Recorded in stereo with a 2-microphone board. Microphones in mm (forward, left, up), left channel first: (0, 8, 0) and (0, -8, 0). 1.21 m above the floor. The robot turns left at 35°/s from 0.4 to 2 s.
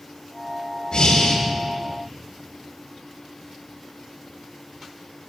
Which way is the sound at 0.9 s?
75° left (ahead or behind).